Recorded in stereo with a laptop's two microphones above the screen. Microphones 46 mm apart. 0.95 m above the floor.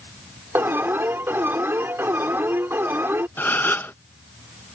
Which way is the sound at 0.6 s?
55° right (ahead or behind).